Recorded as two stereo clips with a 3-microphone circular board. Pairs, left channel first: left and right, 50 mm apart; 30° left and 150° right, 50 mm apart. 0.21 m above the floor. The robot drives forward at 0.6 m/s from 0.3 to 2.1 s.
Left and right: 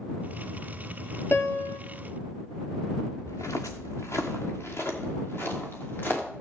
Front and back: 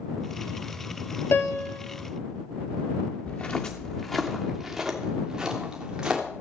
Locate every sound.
1.3 s a piano: 55° left, 0.8 m; by 1.8 s 80° left, 0.7 m
3.3 s footsteps: 85° left, 1.3 m; by 6.2 s 135° left, 4 m